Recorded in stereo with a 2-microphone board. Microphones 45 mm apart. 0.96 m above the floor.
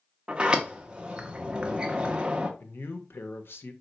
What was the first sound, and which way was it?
A sliding door, 25° right (ahead or behind).